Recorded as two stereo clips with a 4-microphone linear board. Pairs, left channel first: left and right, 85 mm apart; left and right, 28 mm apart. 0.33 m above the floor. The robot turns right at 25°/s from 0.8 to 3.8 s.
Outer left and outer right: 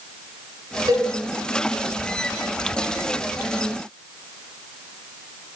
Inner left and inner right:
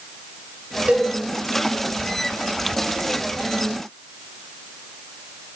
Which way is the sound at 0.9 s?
45° right (ahead or behind).